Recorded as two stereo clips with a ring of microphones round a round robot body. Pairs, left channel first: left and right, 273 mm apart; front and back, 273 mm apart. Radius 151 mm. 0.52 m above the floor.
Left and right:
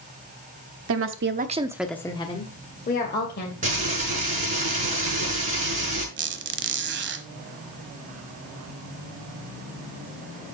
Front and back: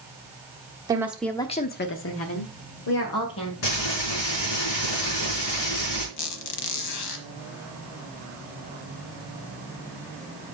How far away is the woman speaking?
About 1.1 m.